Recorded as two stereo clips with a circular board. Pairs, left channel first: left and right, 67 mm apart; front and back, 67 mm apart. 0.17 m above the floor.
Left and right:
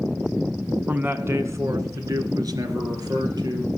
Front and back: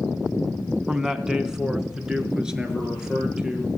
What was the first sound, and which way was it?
A man speaking, 105° right.